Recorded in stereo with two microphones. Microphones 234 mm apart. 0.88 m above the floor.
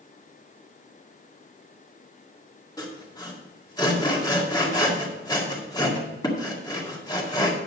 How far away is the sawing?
About 2 m.